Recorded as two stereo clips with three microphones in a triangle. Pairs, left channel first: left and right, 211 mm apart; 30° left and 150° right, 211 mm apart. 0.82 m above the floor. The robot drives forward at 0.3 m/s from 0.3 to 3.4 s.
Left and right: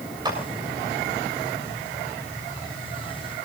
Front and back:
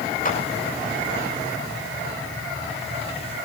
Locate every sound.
0.2 s a clap: 20° right, 7 m